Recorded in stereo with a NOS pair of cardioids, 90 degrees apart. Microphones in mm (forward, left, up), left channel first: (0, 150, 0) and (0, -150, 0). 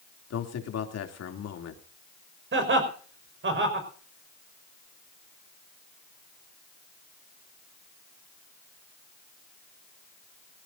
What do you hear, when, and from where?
0.3 s a man speaking: 55° left, 3 m
2.5 s laughter: 40° right, 5.5 m